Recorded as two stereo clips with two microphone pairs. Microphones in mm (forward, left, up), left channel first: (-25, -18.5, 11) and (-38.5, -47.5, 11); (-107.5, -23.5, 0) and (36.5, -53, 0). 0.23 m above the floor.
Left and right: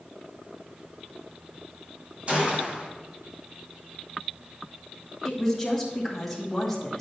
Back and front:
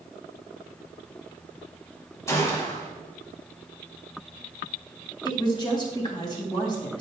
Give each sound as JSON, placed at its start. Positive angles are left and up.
{"t": 2.3, "sound": "a gunshot", "azimuth_deg": -135, "distance_m": 1.5}
{"t": 5.2, "sound": "a woman speaking", "azimuth_deg": 145, "distance_m": 1.7}